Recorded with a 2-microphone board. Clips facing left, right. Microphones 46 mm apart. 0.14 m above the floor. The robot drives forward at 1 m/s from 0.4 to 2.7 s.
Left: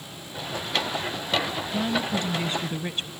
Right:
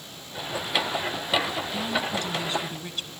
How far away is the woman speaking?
About 1.3 m.